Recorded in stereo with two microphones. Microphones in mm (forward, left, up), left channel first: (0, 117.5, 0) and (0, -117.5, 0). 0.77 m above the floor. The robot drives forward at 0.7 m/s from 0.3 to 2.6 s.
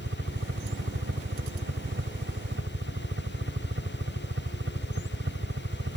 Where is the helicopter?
60° right (ahead or behind).